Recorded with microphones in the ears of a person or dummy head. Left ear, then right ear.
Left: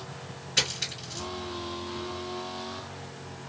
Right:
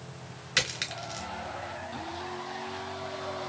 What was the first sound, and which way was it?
A dropped coin, 40° right (ahead or behind).